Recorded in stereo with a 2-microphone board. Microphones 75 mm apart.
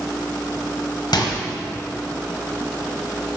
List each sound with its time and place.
1.1 s a microwave: 70° left (ahead or behind), 1.4 m